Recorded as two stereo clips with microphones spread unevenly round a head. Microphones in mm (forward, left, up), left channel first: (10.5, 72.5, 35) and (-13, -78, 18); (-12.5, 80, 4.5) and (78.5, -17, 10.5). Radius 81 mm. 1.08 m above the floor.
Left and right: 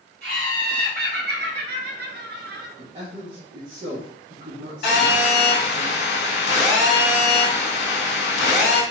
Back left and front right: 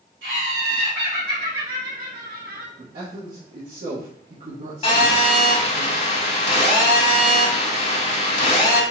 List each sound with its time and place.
0.2 s laughter: 80° right, 2 m; by 2.7 s 85° right, 0.9 m
2.8 s a man speaking: 55° right, 1.2 m
4.8 s a phone buzzing: 95° left, 2 m